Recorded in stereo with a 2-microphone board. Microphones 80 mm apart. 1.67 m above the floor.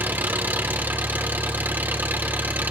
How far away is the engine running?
About 2.5 m.